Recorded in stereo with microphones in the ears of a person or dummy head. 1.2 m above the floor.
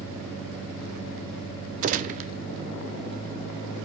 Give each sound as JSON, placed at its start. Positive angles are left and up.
{"t": 1.8, "sound": "a gunshot", "side_deg": -40, "distance_m": 0.5}